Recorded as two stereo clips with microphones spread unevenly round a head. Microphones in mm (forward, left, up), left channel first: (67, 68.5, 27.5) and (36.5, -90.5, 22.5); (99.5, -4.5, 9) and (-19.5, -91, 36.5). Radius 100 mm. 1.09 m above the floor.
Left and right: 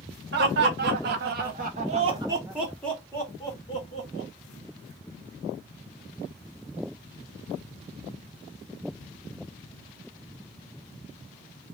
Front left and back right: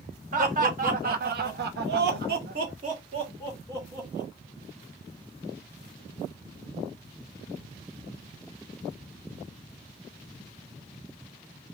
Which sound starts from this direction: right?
Laughter, at 0.3 s.